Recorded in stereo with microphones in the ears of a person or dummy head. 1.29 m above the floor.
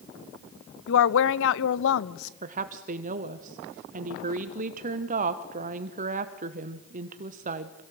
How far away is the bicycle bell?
I don't hear a bicycle bell.